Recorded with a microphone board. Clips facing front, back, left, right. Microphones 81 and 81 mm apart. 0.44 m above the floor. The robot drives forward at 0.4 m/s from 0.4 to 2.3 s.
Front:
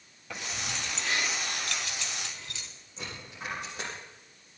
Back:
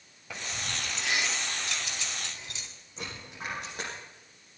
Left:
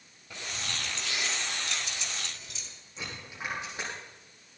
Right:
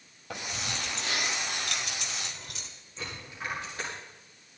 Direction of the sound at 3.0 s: 160° left.